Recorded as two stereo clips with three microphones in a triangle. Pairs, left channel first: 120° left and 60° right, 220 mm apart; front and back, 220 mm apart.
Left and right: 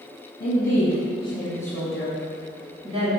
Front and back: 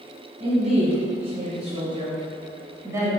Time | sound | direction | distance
0.4 | a woman speaking | 135° left | 1.6 m